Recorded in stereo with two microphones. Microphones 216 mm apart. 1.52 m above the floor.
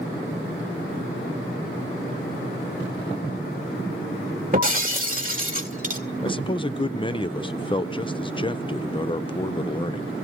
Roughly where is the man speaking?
Left.